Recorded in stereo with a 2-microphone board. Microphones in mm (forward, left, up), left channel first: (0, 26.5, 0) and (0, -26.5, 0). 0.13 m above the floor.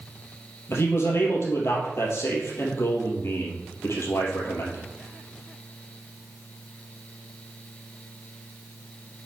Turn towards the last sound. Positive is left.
turn(degrees=55)  # may be behind; listen again after turning